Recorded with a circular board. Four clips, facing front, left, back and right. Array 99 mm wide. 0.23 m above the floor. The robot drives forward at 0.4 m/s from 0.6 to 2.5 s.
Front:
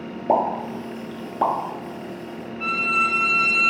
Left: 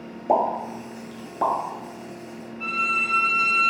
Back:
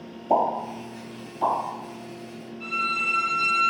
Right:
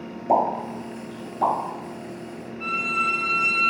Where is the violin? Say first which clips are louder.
Right 1 dB, front 5 dB; 5° left, 0.7 m.